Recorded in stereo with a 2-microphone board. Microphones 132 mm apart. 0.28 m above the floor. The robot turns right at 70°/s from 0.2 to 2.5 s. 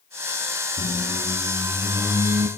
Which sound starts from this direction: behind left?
A squeak, at 0.8 s.